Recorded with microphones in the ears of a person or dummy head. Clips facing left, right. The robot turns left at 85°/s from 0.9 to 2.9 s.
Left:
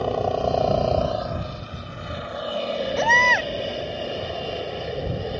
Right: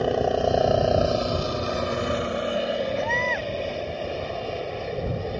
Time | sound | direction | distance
0.0 | a helicopter | 15° right | ?
3.0 | a baby crying | 70° left (ahead or behind) | ?